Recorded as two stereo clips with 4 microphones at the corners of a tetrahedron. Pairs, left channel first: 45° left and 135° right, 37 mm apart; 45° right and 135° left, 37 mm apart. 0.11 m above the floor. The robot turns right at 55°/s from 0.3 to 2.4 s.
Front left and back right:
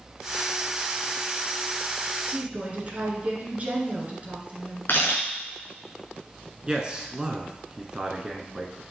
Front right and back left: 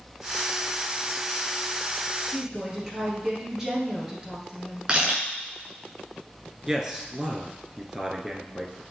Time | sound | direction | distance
2.3 | a woman speaking | 170° right | 1.9 m
4.9 | a camera shutter | 70° left | 3.5 m
6.7 | a man speaking | 165° right | 1.1 m